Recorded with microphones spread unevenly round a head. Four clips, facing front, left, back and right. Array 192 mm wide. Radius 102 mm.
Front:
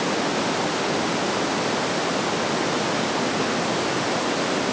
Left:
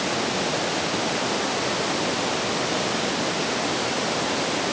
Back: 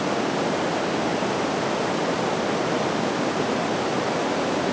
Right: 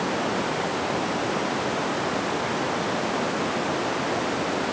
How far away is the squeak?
I don't hear a squeak.